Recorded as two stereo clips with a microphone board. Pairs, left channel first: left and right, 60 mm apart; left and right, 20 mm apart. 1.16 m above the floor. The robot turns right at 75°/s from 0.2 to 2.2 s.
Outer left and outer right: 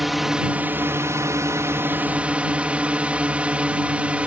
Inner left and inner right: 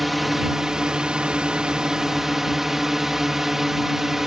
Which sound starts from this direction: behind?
A drone, at 0.0 s.